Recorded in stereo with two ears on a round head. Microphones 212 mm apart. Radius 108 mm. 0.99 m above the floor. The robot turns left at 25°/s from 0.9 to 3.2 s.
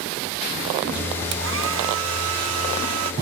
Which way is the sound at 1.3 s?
55° right.